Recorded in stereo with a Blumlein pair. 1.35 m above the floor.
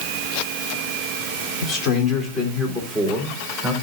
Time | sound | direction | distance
1.6 | a man speaking | 30° left | 3.5 m